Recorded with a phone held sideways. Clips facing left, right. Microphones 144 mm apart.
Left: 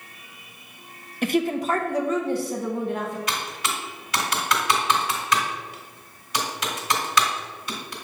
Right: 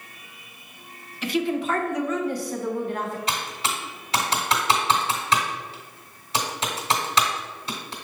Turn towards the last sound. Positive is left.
turn(degrees=-30)  # may be behind; listen again after turning